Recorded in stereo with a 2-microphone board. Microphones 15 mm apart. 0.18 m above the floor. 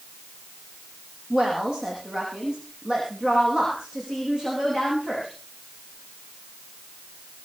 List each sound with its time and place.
1.3 s a woman speaking: 55° right (ahead or behind), 6.5 m; by 5.3 s 45° right (ahead or behind), 10 m